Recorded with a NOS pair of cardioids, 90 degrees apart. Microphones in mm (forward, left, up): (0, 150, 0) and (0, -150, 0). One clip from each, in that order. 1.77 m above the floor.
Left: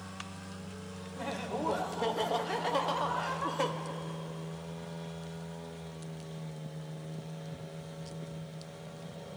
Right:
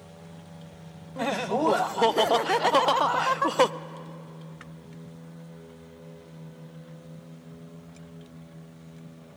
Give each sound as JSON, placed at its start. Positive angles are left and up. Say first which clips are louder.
{"t": 1.2, "sound": "laughter", "louder": "right 10 dB", "azimuth_deg": -60, "distance_m": 0.9}